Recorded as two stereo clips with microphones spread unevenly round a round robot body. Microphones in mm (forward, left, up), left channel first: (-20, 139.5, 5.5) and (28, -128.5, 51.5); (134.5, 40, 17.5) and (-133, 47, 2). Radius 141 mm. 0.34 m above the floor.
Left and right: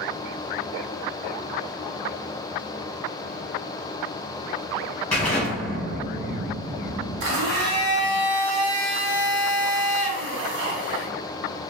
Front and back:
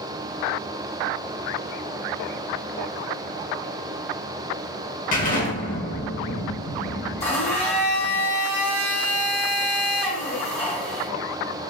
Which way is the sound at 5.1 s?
30° left.